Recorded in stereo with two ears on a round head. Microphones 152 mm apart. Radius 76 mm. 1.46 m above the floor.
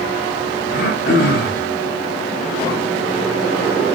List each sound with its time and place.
0.7 s throat clearing: 70° left (ahead or behind), 8.5 m